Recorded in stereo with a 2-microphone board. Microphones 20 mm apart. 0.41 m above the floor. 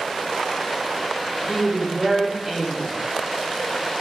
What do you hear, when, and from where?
1.5 s a woman speaking: 15° right (ahead or behind), 0.8 m